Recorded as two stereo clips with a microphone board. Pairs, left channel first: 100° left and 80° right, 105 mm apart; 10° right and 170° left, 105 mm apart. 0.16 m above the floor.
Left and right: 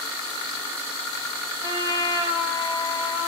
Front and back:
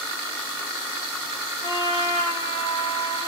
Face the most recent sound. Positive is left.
turn(degrees=-20)